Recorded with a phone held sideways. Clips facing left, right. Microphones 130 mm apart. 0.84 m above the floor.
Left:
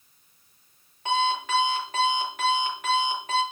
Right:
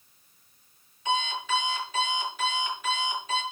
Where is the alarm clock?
60° left (ahead or behind), 7 m.